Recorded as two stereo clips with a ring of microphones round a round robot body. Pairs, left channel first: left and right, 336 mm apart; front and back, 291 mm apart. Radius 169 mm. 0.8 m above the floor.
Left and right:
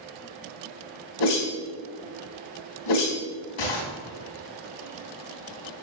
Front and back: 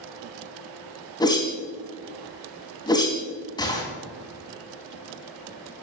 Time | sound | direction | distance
1.2 | a whoosh | 75° left | 3 m